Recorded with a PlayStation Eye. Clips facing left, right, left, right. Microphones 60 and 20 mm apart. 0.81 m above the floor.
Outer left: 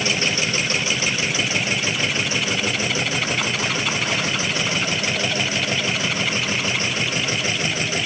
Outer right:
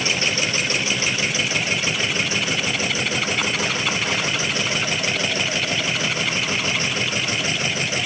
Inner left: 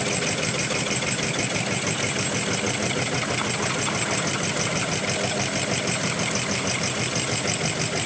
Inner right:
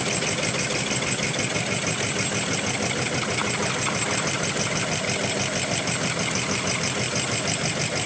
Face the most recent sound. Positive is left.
No sound to turn to.